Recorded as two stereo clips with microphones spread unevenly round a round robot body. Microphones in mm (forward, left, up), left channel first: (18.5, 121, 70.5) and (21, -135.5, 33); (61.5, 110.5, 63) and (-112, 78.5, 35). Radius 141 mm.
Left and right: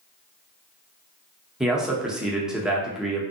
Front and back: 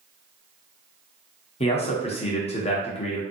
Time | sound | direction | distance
1.6 | a man speaking | 20° right | 0.7 m